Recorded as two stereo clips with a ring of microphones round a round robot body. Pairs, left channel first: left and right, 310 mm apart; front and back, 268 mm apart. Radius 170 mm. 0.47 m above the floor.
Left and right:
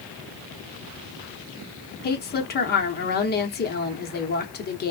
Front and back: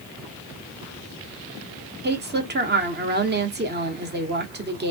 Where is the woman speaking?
140° left, 1.0 m.